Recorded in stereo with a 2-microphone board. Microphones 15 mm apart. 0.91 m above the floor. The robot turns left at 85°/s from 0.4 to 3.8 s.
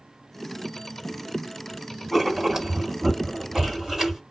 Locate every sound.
2.1 s writing: straight ahead, 2.5 m; by 4.2 s 145° right, 2.5 m